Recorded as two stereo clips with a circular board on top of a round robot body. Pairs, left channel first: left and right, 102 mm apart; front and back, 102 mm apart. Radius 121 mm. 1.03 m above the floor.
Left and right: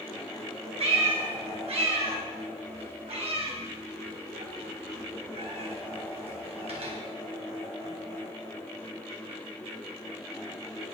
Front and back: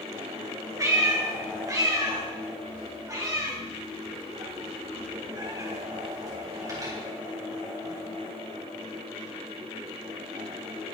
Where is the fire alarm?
I don't hear a fire alarm.